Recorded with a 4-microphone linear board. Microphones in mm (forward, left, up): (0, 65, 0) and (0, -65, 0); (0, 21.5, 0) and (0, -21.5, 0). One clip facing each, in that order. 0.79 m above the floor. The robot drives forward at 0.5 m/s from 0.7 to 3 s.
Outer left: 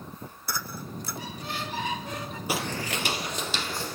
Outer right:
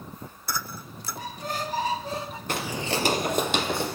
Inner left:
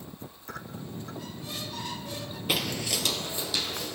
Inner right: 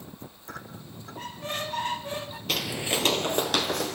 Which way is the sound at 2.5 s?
10° left (ahead or behind).